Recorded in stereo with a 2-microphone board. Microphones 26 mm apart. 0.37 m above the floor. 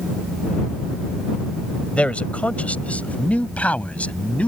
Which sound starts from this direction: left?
A man speaking, at 1.9 s.